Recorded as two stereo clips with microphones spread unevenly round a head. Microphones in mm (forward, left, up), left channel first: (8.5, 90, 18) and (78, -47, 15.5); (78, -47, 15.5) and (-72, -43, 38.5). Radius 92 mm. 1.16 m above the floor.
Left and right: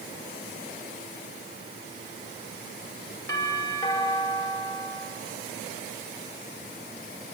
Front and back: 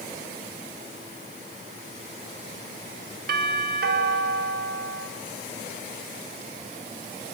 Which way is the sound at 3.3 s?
165° right.